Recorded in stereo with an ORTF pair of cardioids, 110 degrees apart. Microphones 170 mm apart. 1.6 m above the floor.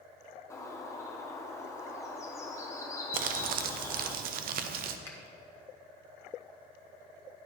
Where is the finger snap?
15° left, 1.6 m.